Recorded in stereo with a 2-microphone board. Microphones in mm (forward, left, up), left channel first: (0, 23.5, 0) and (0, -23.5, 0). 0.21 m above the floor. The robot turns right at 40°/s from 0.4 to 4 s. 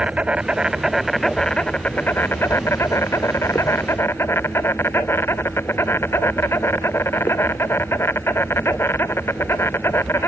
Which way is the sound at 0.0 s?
25° right.